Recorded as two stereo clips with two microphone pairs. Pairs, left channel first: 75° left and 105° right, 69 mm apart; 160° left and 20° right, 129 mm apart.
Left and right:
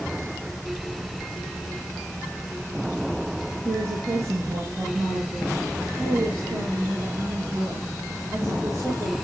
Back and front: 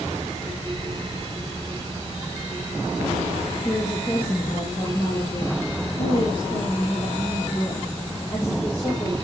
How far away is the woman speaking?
About 5 m.